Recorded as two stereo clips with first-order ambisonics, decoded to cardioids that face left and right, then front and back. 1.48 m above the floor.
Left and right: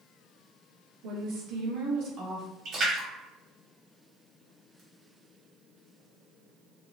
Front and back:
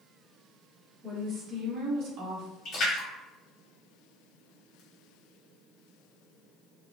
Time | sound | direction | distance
1.0 | a woman speaking | 105° right | 1.2 m
2.6 | a splash | 50° right | 1.4 m